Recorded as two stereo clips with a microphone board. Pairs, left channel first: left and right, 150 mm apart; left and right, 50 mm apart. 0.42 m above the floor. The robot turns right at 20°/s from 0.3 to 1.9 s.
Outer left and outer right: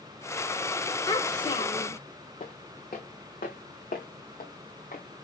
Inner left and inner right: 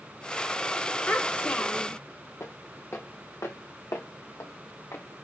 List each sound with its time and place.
1.1 s a child speaking: 25° left (ahead or behind), 0.9 m; by 2.0 s 35° left (ahead or behind), 0.9 m
2.4 s footsteps: 55° left (ahead or behind), 1.8 m; by 5.2 s 70° left (ahead or behind), 1.7 m